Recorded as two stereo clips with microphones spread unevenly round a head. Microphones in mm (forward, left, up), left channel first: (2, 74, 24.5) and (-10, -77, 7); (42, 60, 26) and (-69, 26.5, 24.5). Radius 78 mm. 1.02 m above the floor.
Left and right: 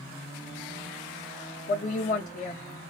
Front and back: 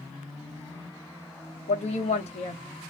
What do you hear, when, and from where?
1.7 s a woman speaking: 40° left, 0.8 m